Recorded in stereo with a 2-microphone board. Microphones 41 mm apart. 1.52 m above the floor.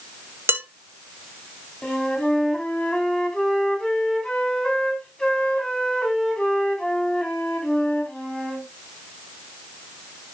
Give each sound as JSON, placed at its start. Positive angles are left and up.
{"t": 0.5, "sound": "dishes clattering", "side_deg": -65, "distance_m": 1.4}
{"t": 1.8, "sound": "a flute", "side_deg": 25, "distance_m": 3.5}